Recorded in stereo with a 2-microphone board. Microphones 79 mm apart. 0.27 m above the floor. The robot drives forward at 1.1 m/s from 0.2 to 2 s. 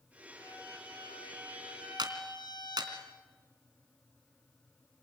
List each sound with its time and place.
0.4 s a violin: 75° left (ahead or behind), 7.5 m; by 3.0 s 65° left (ahead or behind), 8 m
2.0 s a clap: 65° right (ahead or behind), 3 m